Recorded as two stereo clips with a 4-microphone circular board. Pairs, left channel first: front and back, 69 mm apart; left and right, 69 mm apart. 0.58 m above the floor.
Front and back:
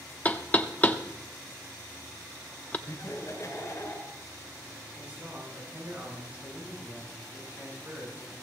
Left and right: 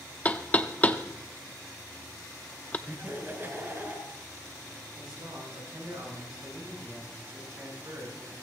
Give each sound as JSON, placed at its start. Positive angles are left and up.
{"t": 0.2, "sound": "knocking", "azimuth_deg": 45, "distance_m": 0.7}
{"t": 2.9, "sound": "laughter", "azimuth_deg": -35, "distance_m": 3.5}
{"t": 4.9, "sound": "a man speaking", "azimuth_deg": -110, "distance_m": 7.0}